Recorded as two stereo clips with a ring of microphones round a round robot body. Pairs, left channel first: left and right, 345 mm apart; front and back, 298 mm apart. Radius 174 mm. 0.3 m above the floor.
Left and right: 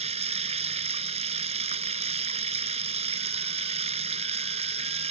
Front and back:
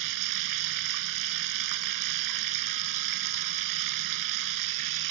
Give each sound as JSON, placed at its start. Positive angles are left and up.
{"t": 0.0, "sound": "running water", "azimuth_deg": -160}